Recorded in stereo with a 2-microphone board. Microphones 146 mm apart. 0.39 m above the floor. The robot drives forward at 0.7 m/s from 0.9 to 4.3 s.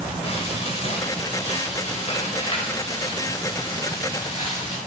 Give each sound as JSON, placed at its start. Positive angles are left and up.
{"t": 0.2, "sound": "frying", "side_deg": 45, "distance_m": 1.8}